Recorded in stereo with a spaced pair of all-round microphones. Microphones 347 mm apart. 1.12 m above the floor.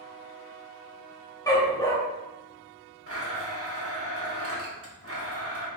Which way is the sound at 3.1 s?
40° right (ahead or behind).